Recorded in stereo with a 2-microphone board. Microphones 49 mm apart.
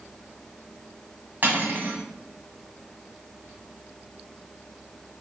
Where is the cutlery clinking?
45° right (ahead or behind), 1.7 m.